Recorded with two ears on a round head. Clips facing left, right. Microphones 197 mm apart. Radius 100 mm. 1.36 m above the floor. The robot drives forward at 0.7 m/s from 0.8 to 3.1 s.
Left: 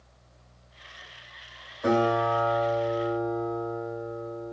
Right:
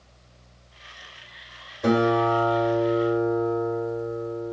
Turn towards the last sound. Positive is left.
turn(degrees=-30)  # may be behind; listen again after turning